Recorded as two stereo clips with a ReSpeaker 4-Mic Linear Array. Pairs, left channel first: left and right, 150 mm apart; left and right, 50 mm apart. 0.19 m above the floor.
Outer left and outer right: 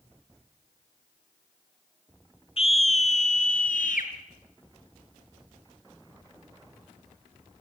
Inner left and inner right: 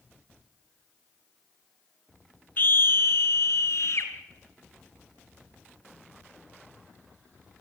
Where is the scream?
40° left (ahead or behind), 3 m; by 4.1 s 60° left (ahead or behind), 3.5 m.